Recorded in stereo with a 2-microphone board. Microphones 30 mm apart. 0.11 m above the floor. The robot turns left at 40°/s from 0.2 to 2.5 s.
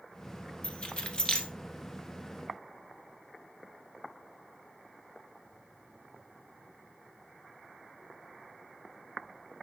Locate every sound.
0.6 s keys jangling: 40° left (ahead or behind), 1.0 m; by 1.5 s 30° left (ahead or behind), 1.0 m